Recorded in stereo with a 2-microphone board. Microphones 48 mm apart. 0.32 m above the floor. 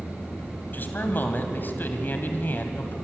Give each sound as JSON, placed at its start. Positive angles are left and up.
{"t": 0.7, "sound": "a man speaking", "side_deg": 45, "distance_m": 2.5}